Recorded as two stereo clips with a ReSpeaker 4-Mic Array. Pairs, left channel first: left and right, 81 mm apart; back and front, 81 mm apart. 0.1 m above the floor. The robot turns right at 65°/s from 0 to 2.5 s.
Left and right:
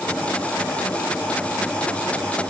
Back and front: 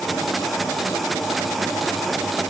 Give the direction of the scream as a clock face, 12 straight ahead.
No scream in this recording.